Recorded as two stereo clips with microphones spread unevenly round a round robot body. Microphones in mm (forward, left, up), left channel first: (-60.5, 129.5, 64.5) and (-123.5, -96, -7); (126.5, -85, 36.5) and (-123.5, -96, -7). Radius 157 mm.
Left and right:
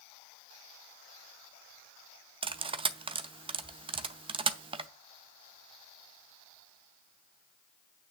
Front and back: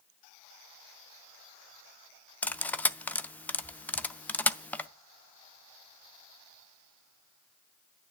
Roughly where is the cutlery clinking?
Right.